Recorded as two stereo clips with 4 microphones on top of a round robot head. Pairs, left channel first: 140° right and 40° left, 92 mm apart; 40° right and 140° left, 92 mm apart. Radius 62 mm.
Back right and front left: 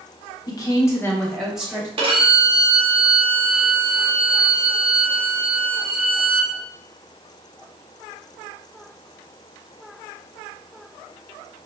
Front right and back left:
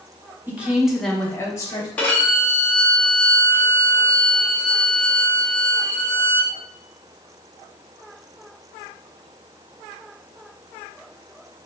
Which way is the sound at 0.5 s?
155° right.